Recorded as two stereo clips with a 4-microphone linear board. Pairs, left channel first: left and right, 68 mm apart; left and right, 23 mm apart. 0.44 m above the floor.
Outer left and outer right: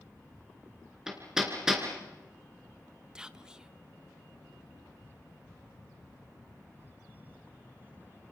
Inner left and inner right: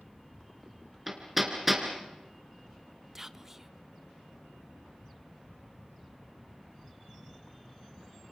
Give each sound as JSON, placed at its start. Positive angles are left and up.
{"t": 1.1, "sound": "hammering", "side_deg": -10, "distance_m": 4.0}
{"t": 3.1, "sound": "whispering", "side_deg": -10, "distance_m": 0.9}